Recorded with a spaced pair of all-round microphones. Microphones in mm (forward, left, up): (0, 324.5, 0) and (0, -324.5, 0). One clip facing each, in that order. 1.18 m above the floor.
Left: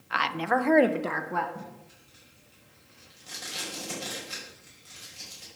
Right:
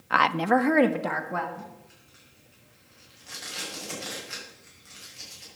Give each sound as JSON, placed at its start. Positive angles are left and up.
{"t": 0.1, "sound": "a woman speaking", "side_deg": -70, "distance_m": 0.8}
{"t": 1.6, "sound": "tape being pulled", "side_deg": 60, "distance_m": 5.5}